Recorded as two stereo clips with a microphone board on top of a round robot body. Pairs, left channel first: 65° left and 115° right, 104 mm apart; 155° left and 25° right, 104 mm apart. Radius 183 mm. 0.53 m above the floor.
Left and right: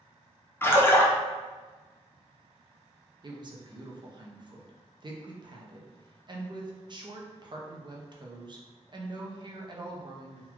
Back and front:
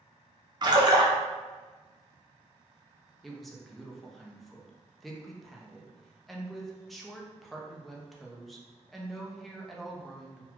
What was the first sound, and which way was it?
A splash, 5° left.